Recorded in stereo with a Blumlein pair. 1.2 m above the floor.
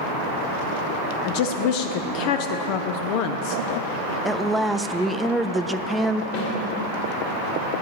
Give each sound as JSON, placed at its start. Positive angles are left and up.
{"t": 1.2, "sound": "a woman speaking", "azimuth_deg": 45, "distance_m": 0.7}
{"t": 4.2, "sound": "a woman speaking", "azimuth_deg": -5, "distance_m": 0.6}
{"t": 6.3, "sound": "a snare drum", "azimuth_deg": 50, "distance_m": 3.5}